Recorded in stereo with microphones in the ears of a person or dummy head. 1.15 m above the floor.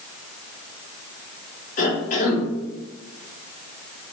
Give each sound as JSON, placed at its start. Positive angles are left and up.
{"t": 1.8, "sound": "a cough", "side_deg": 35, "distance_m": 1.0}